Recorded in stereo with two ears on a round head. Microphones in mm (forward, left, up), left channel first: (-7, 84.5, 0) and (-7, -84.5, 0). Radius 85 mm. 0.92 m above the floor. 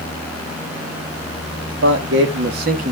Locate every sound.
1.7 s a man speaking: 70° right (ahead or behind), 1.9 m; by 2.9 s 40° right (ahead or behind), 1.3 m